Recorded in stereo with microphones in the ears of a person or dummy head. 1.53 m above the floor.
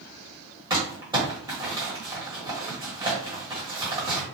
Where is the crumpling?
25° right (ahead or behind), 1.1 m.